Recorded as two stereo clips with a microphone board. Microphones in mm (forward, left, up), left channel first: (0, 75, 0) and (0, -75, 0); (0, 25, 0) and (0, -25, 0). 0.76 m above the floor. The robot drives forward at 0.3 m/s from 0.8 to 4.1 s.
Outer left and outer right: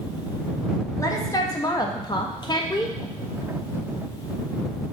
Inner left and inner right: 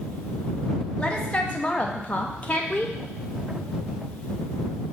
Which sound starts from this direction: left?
A woman speaking, at 1.0 s.